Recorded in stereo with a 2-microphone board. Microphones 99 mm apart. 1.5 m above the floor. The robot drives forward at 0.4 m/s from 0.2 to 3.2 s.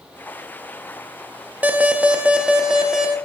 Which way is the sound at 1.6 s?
15° right (ahead or behind).